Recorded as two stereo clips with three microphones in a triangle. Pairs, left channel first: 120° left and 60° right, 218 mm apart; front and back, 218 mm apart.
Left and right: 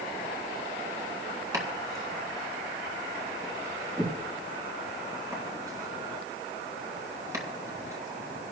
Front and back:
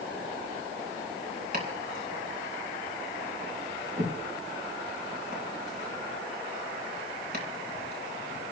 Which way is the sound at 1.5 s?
135° right.